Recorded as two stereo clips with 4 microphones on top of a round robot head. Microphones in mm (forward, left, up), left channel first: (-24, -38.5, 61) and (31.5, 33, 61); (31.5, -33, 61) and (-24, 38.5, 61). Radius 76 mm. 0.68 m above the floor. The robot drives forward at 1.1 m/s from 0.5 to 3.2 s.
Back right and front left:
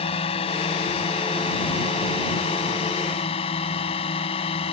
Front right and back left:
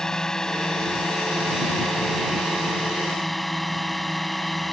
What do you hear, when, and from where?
0.0 s a drone: 135° right; by 4.7 s 140° right